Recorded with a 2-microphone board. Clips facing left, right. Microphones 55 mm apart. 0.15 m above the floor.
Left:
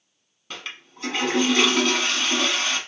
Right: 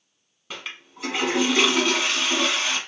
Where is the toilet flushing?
10° right (ahead or behind), 1.0 m.